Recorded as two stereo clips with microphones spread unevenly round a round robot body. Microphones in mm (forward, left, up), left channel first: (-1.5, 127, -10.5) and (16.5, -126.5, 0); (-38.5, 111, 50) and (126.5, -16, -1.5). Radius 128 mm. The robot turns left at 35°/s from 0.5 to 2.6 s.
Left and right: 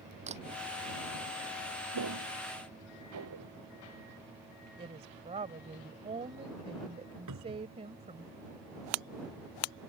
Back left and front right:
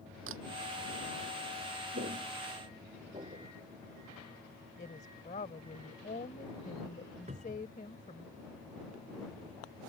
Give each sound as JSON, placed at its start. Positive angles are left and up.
{"t": 0.3, "sound": "a camera shutter", "azimuth_deg": -20}
{"t": 1.9, "sound": "footsteps", "azimuth_deg": -95}
{"t": 4.8, "sound": "a woman speaking", "azimuth_deg": -155}
{"t": 7.3, "sound": "a cupboard door", "azimuth_deg": -105}